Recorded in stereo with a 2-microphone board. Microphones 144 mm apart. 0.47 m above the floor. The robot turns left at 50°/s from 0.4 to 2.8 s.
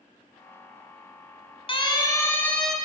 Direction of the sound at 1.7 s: 40° left (ahead or behind).